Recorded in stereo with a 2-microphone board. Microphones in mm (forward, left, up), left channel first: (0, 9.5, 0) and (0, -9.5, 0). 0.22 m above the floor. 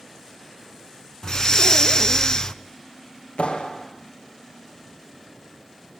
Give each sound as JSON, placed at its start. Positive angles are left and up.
{"t": 1.2, "sound": "breathing", "side_deg": 35, "distance_m": 0.7}
{"t": 3.4, "sound": "a clap", "side_deg": 75, "distance_m": 4.5}